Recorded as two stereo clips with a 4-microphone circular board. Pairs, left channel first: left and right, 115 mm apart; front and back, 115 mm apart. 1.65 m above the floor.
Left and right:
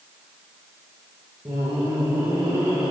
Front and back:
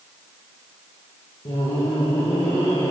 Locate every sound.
1.4 s laughter: 30° right, 1.8 m; by 2.9 s 60° right, 2.5 m